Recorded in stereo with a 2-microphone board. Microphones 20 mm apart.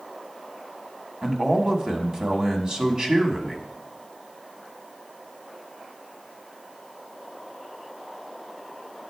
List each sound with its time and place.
1.2 s a man speaking: 35° right (ahead or behind), 1.2 m